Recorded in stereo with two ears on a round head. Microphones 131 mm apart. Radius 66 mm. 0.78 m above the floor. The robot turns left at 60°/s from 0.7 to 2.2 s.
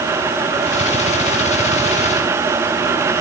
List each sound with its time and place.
Only background noise.